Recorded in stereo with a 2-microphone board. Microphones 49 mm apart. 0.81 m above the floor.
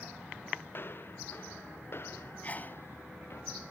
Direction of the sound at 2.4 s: 35° left (ahead or behind).